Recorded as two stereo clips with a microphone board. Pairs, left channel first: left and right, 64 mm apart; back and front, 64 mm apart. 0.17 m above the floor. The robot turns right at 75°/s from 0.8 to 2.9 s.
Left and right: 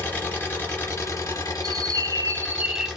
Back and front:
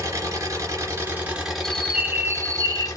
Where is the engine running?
30° left, 2 m; by 3.0 s 170° right, 2 m.